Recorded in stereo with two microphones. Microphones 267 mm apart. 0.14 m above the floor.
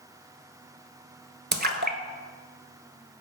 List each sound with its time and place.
1.5 s a splash: 40° right (ahead or behind), 0.5 m